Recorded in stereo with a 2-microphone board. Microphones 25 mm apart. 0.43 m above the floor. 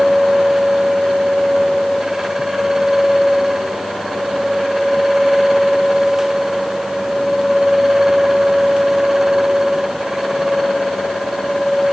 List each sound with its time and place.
Only background noise.